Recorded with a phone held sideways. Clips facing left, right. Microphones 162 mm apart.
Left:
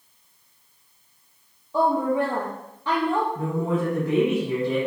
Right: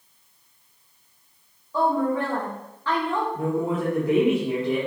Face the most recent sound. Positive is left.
turn(degrees=-25)  # may be behind; listen again after turning